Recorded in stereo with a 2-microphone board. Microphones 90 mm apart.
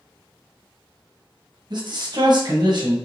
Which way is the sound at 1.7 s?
50° right (ahead or behind).